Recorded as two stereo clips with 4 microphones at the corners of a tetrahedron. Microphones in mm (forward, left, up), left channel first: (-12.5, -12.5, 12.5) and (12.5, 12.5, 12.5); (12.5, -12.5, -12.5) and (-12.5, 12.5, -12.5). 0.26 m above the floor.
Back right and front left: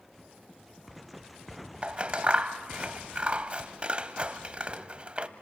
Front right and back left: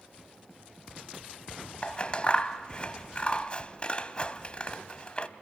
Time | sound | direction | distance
1.8 | scissors | straight ahead | 0.8 m